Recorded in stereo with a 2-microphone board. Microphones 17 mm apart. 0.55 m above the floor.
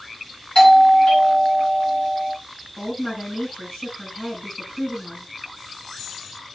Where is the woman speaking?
75° left (ahead or behind), 5 m.